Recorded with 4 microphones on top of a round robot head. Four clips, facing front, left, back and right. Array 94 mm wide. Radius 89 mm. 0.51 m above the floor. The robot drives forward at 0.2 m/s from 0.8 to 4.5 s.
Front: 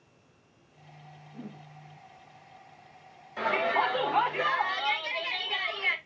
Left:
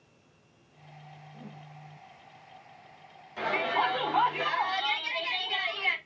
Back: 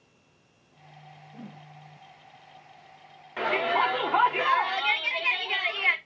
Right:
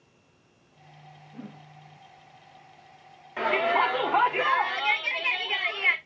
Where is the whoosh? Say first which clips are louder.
Right 6 dB, front 1 dB; 120° right, 3 m.